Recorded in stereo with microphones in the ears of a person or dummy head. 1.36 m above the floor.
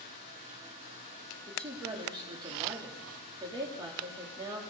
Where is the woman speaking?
25° right (ahead or behind), 3.5 m.